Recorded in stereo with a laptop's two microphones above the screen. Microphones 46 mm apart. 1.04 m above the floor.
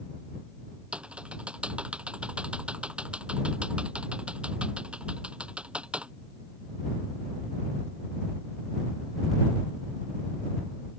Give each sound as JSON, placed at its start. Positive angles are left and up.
{"t": 0.9, "sound": "typing on a keyboard", "side_deg": -25}